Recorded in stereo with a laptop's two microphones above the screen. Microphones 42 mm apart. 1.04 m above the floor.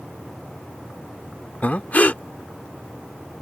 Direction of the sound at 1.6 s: 40° left (ahead or behind).